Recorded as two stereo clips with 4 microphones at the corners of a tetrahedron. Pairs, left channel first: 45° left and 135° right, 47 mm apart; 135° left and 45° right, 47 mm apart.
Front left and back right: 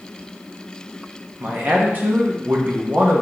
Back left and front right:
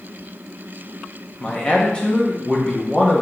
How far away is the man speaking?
About 1.3 m.